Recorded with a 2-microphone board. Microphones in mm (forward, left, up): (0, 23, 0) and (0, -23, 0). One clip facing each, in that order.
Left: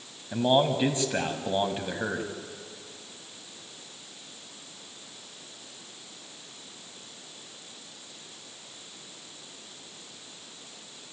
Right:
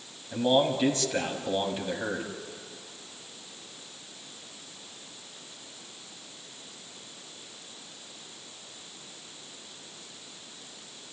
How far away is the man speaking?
About 1.5 m.